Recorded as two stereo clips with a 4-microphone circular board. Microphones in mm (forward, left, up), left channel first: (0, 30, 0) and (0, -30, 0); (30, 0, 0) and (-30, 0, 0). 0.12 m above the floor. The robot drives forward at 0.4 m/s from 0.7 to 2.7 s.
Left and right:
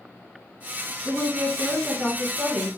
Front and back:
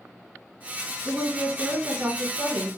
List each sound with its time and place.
1.1 s a woman speaking: 150° right, 1.5 m; by 2.7 s 165° right, 1.8 m